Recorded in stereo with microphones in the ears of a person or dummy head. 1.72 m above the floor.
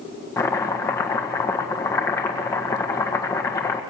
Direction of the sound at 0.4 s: 15° left (ahead or behind).